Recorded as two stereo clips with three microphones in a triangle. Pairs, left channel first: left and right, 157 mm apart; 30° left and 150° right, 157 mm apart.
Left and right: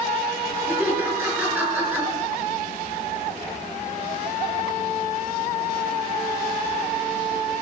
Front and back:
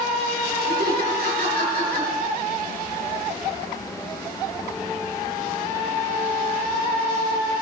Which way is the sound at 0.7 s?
170° right.